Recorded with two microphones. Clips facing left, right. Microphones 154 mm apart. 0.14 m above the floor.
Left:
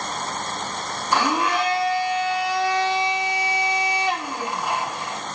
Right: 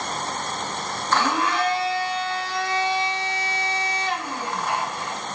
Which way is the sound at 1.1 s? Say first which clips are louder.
Left 1 dB; 15° left (ahead or behind).